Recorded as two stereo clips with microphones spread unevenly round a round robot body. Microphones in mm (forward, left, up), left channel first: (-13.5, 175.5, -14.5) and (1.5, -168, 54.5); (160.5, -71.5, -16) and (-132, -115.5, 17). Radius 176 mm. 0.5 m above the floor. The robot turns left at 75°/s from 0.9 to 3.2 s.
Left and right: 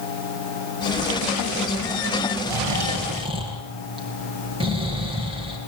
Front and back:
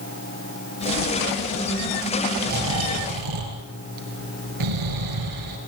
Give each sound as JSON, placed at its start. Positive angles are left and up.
{"t": 2.5, "sound": "snoring", "azimuth_deg": -110, "distance_m": 5.0}